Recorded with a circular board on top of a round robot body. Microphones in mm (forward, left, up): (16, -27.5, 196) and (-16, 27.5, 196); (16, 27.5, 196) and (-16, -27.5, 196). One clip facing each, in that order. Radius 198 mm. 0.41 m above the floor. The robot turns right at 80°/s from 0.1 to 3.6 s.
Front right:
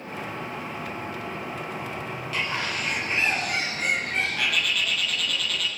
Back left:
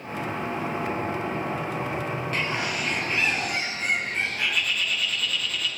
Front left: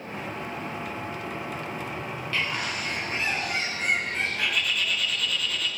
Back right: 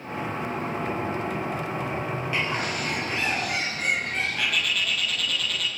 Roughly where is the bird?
Behind.